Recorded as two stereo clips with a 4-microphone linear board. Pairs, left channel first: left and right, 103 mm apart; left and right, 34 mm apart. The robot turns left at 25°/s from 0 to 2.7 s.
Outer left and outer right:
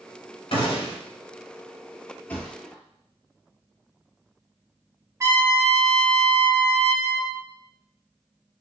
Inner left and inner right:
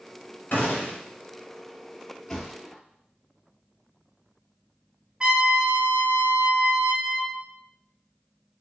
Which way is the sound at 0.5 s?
60° left (ahead or behind).